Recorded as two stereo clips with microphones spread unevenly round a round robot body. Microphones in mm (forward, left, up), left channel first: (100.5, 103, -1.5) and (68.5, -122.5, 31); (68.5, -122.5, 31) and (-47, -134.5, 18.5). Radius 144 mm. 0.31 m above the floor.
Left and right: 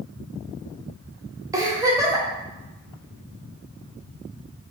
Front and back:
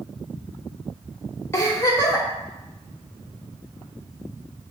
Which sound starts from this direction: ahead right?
A giggle, at 1.5 s.